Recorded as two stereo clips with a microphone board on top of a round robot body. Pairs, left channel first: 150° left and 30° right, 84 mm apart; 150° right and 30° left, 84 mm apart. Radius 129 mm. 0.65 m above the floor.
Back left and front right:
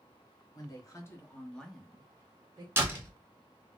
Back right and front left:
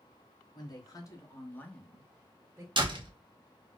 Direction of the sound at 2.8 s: 30° left.